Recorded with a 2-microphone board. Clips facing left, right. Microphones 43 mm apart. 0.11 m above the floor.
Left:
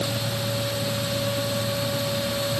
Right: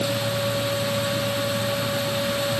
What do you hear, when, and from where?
Only background noise.